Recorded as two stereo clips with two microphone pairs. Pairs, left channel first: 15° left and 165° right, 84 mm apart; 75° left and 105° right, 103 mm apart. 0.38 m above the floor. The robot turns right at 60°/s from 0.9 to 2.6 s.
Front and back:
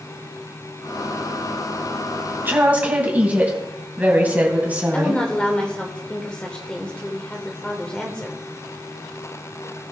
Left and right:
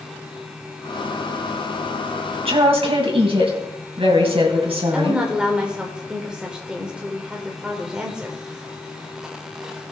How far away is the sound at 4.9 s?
About 1.4 m.